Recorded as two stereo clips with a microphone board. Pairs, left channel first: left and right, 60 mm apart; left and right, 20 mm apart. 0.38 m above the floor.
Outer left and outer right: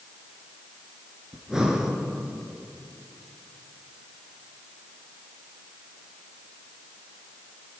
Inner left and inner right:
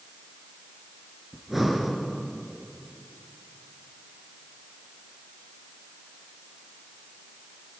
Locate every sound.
1.3 s breathing: 10° right (ahead or behind), 2.5 m